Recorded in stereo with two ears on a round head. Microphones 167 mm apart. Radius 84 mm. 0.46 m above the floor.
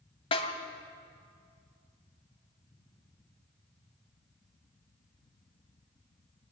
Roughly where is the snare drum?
Left.